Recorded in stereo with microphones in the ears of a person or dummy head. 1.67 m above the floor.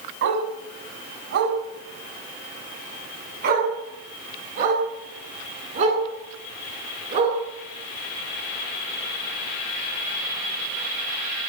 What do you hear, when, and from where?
0.2 s a dog barking: 70° right (ahead or behind), 6.5 m; by 7.4 s 40° right (ahead or behind), 10.5 m